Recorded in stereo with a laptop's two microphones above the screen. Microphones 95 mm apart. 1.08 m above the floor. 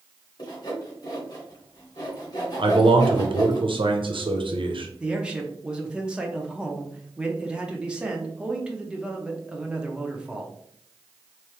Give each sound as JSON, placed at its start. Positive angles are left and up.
{"t": 0.4, "sound": "sawing", "side_deg": 45, "distance_m": 2.0}
{"t": 2.6, "sound": "a man speaking", "side_deg": -60, "distance_m": 0.8}
{"t": 5.0, "sound": "a man speaking", "side_deg": -10, "distance_m": 0.8}